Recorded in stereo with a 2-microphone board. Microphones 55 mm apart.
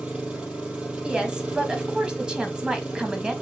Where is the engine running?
20° right (ahead or behind), 2.5 m.